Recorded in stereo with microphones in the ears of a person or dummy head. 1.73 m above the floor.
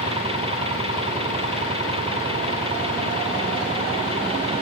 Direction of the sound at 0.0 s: 30° right (ahead or behind).